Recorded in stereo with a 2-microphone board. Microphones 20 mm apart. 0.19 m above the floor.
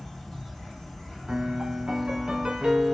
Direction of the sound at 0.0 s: 25° left (ahead or behind).